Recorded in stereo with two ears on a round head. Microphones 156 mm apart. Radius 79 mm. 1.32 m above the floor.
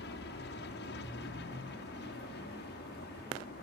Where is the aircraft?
65° left (ahead or behind).